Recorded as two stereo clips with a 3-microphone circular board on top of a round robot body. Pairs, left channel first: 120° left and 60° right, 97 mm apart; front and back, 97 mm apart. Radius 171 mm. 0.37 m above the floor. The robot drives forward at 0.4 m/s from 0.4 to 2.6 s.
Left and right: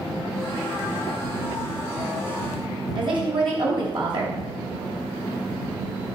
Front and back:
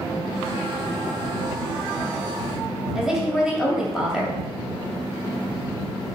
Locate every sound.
3.0 s a woman speaking: 95° right, 3 m